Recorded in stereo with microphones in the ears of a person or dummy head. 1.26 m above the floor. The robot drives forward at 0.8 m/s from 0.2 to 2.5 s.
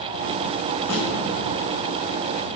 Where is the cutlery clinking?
No cutlery clinking in this recording.